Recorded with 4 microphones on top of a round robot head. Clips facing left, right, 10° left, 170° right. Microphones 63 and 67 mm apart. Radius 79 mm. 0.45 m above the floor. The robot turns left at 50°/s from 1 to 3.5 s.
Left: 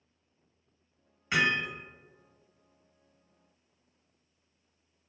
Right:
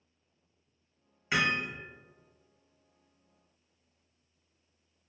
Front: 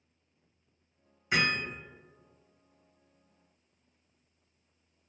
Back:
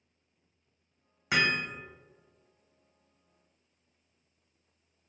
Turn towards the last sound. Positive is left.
turn(degrees=75)